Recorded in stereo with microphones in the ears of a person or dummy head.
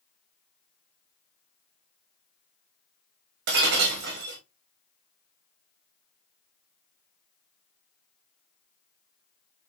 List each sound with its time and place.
3.5 s breaking glass: 45° right (ahead or behind), 1.2 m